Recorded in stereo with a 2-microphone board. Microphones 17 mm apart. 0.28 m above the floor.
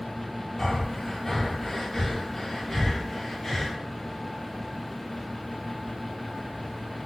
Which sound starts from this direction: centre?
Breathing, at 0.6 s.